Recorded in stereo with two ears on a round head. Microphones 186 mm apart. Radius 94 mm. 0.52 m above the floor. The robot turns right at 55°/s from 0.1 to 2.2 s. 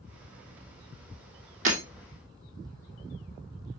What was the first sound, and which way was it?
Breaking glass, 40° right (ahead or behind).